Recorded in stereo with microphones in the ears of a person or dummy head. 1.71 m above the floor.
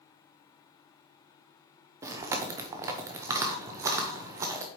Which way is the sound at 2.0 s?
20° right (ahead or behind).